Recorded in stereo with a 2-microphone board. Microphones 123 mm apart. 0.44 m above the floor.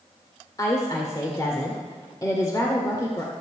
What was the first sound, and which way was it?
A woman speaking, 30° left (ahead or behind).